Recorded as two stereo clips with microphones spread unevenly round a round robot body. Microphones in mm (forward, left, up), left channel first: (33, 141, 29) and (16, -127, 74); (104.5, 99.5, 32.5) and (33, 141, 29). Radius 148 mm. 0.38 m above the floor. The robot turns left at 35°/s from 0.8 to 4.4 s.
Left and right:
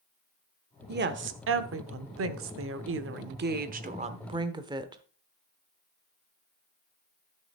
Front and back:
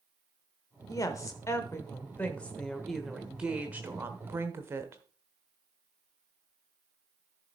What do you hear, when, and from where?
0.9 s a woman speaking: 50° right, 1.1 m; by 5.0 s 170° right, 1.1 m